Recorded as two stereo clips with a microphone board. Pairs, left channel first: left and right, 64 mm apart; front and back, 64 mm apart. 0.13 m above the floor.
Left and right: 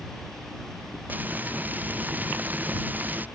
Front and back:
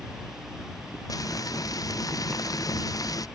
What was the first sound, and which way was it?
Frying, 25° right.